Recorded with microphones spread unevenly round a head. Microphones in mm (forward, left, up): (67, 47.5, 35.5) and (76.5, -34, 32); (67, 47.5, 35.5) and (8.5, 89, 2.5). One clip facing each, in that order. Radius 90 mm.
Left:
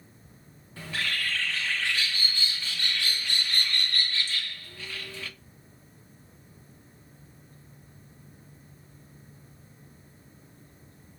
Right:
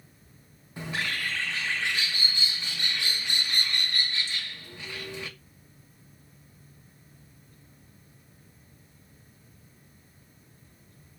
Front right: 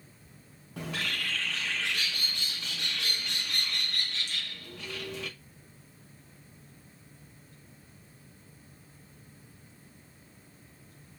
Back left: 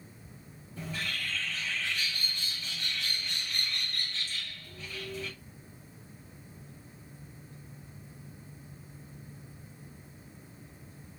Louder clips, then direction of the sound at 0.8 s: Right 1 dB, front right 2 dB; 10° right.